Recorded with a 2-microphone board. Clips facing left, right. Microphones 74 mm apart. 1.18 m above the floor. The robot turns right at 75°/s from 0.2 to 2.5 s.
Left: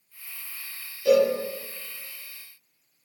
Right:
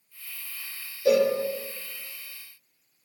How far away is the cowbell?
About 0.7 m.